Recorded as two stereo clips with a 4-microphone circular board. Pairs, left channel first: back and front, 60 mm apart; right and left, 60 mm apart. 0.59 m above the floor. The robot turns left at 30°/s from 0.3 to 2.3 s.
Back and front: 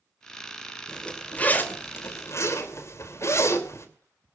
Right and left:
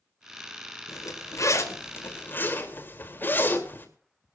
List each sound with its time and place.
0.9 s a zipper: 100° right, 2.5 m; by 3.9 s 145° right, 2.5 m